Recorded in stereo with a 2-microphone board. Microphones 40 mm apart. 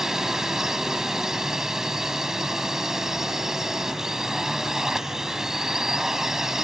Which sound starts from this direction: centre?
A drone, at 0.0 s.